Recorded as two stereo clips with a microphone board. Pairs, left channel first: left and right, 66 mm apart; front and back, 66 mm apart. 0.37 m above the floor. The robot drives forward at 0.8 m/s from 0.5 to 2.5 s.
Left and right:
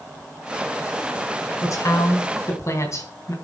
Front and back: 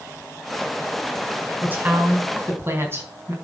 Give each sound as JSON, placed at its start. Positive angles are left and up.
{"t": 1.6, "sound": "a woman speaking", "azimuth_deg": 115, "distance_m": 3.0}